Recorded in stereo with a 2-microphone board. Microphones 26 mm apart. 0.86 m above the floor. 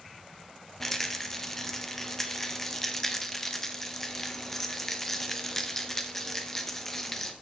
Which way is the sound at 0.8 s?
10° left (ahead or behind).